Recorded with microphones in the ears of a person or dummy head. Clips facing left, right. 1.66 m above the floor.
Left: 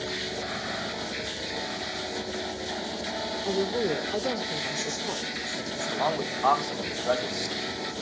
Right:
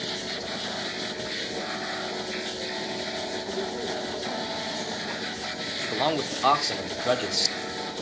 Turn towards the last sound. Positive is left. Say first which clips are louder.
# right 2 dB
turn(degrees=-40)  # may be behind; listen again after turning